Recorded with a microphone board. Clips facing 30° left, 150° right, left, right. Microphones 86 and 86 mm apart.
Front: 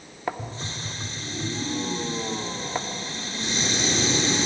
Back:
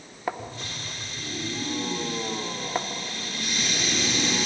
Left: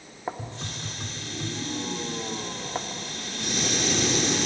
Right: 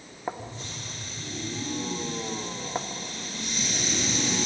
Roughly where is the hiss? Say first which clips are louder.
Front 2 dB, left 2 dB; left.